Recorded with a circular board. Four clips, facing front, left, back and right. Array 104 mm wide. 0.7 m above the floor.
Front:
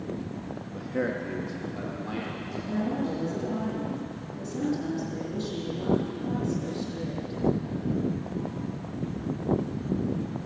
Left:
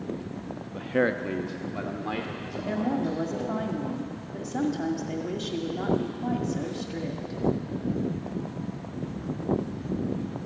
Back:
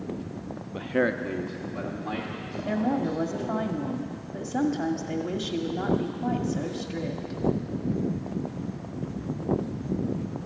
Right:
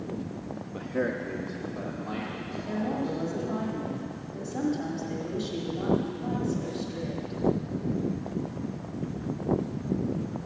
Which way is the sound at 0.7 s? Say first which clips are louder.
Left 4 dB, back 4 dB; 170° right.